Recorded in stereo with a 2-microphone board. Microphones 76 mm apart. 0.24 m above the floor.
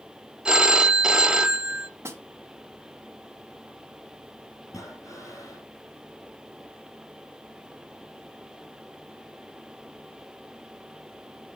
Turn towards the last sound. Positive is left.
turn(degrees=45)  # may be behind; listen again after turning